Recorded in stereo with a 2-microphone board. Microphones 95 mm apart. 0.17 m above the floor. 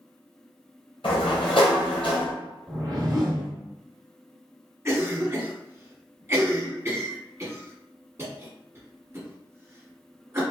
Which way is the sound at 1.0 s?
65° left (ahead or behind).